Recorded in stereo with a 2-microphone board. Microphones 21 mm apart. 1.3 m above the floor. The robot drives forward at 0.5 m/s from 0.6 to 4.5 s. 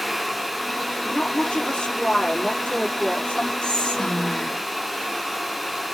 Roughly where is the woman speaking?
Left.